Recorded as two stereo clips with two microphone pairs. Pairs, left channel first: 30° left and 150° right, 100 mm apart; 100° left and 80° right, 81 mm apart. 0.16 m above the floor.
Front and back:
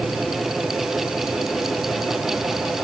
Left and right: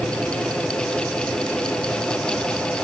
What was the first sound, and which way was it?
Only background noise.